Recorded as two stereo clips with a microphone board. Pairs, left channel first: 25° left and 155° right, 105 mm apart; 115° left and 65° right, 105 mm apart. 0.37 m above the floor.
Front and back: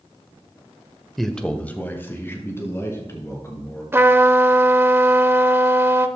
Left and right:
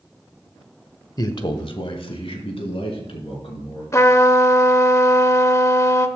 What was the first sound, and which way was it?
A man speaking, 110° left.